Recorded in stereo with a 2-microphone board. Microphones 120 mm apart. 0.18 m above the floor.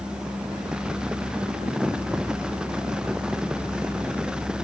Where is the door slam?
No door slam in this recording.